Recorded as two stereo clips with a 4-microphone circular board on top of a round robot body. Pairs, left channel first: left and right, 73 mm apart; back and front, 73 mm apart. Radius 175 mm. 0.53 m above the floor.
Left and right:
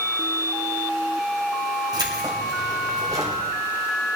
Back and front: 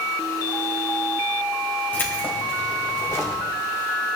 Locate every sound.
1.9 s keys jangling: 115° right, 3 m; by 3.4 s 130° right, 3.5 m